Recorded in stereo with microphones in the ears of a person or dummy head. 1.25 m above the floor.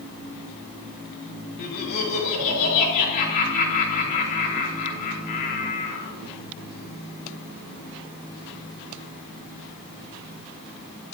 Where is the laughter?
40° left (ahead or behind), 4 m.